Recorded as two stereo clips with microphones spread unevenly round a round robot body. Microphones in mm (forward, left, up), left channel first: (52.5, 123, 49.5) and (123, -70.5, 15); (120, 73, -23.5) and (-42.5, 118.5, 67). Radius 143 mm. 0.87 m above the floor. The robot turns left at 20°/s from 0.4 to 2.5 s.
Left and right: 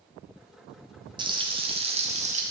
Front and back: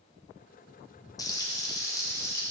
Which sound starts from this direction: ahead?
Frying, at 1.2 s.